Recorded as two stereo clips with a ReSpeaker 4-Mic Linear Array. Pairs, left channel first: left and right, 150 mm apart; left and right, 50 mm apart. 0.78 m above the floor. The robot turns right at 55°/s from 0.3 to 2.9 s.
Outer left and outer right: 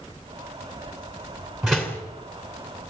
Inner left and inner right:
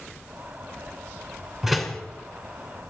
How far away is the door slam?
About 2.5 m.